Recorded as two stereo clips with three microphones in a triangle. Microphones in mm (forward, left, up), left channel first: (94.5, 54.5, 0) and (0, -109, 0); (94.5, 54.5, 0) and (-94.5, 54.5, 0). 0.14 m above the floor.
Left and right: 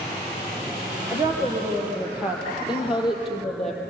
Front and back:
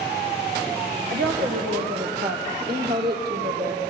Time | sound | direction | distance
1.1 | a woman speaking | 170° left | 4 m